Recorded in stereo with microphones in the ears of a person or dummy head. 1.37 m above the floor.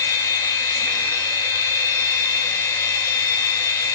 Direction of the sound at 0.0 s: 10° left (ahead or behind).